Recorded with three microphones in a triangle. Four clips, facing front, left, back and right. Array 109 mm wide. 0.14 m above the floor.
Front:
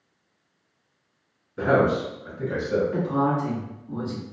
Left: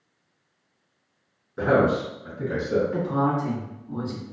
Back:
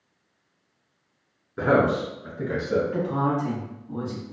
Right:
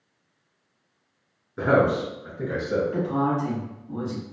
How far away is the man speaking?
About 1.2 m.